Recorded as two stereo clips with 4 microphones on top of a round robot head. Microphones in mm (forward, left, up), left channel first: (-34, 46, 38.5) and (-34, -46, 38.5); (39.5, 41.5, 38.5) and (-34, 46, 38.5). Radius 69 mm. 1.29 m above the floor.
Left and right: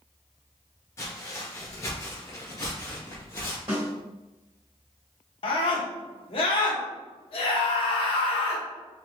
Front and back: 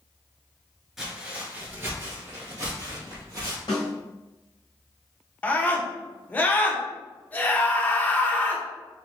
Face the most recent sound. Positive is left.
turn(degrees=65)